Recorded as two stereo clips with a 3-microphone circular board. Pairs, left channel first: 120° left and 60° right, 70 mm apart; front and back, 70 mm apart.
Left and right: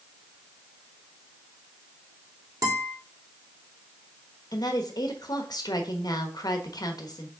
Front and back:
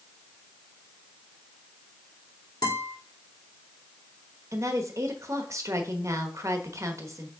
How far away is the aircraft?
I don't hear an aircraft.